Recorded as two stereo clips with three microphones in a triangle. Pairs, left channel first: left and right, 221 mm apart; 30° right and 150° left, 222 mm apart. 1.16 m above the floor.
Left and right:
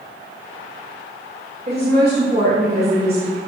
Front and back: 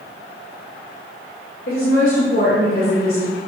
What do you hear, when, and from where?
1.7 s a woman speaking: 45° right, 2 m